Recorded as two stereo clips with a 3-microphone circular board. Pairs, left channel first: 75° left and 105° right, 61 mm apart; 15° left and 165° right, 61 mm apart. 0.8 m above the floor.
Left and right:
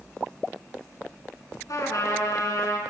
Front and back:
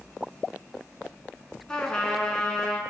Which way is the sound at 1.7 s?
90° left.